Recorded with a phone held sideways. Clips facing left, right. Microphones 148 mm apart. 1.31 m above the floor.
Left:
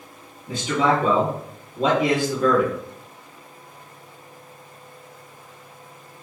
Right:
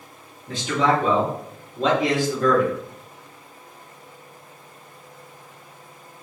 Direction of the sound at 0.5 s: 5° left (ahead or behind).